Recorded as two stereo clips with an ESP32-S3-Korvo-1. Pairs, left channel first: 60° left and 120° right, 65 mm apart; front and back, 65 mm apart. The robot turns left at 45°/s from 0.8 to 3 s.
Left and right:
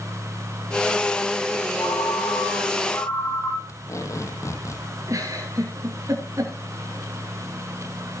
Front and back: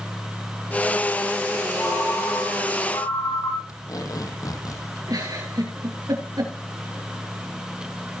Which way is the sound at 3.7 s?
20° left.